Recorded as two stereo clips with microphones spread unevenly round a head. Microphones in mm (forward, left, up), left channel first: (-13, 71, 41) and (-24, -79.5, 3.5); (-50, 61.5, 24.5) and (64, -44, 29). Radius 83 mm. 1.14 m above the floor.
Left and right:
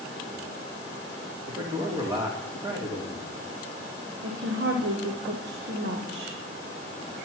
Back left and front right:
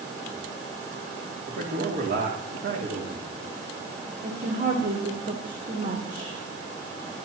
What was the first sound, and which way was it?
A man speaking, 25° right.